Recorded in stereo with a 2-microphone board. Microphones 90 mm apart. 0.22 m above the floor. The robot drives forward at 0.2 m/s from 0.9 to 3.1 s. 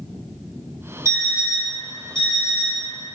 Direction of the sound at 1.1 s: 40° right (ahead or behind).